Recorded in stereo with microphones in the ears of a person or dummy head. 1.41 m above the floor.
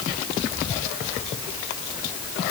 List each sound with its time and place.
Only background noise.